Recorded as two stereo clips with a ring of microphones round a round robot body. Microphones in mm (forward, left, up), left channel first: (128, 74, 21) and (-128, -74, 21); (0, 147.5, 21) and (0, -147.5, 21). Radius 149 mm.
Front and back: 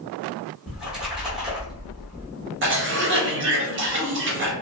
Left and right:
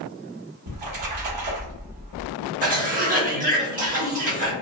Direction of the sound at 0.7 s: 60° right.